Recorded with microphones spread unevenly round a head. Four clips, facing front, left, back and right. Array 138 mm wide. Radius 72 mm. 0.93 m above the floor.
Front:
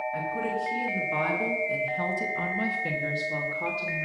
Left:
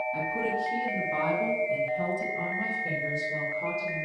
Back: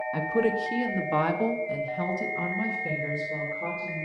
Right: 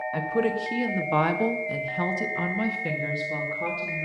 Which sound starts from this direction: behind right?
A woman speaking, at 0.1 s.